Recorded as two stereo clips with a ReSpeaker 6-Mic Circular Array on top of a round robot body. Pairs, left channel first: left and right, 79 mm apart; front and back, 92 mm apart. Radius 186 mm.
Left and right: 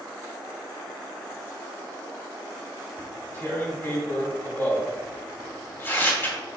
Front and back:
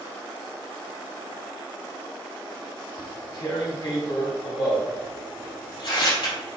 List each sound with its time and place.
3.0 s tearing paper: 30° left, 3 m